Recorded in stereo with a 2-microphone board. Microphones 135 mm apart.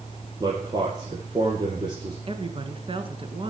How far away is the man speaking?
About 3.5 m.